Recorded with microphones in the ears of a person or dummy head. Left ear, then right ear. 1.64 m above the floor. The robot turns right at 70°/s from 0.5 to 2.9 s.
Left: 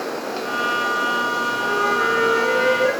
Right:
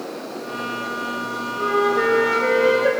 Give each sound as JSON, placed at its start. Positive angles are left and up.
{"t": 1.6, "sound": "a flute", "azimuth_deg": -85, "distance_m": 5.5}